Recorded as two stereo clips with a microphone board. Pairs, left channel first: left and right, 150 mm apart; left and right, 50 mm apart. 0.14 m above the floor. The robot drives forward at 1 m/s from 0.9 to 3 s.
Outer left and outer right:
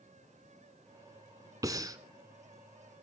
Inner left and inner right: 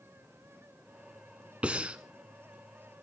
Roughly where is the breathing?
Right.